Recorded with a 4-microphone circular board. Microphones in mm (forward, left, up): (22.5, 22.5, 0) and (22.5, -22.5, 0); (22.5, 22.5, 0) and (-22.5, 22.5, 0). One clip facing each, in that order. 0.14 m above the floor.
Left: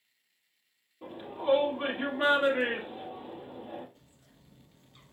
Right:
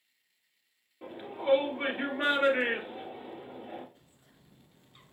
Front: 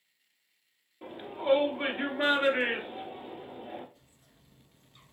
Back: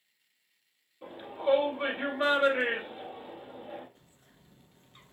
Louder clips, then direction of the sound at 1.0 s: Left 1 dB, back 1 dB; 60° right.